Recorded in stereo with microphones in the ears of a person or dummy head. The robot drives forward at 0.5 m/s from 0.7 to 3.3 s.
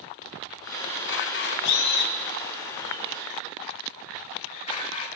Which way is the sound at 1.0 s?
65° left (ahead or behind).